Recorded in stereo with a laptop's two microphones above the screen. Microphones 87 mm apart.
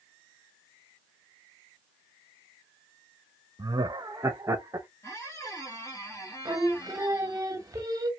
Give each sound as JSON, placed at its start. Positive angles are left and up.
{"t": 3.6, "sound": "laughter", "side_deg": -55, "distance_m": 0.6}
{"t": 5.0, "sound": "a squeak", "side_deg": 35, "distance_m": 1.6}
{"t": 6.5, "sound": "singing", "side_deg": -40, "distance_m": 0.6}